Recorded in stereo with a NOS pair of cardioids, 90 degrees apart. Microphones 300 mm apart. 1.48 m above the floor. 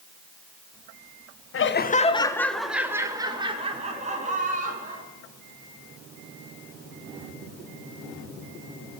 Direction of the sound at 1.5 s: 45° left.